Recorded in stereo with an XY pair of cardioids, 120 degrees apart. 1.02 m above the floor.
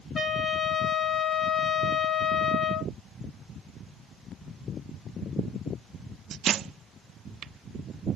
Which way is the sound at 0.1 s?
20° left.